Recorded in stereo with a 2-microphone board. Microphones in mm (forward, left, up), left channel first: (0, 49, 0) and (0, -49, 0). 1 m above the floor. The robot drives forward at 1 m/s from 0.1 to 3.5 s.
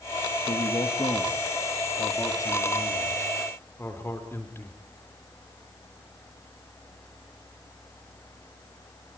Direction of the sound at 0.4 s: 65° left (ahead or behind).